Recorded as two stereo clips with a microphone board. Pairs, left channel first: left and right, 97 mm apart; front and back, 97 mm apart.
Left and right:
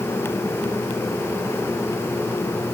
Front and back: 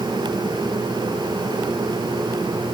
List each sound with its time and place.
Only background noise.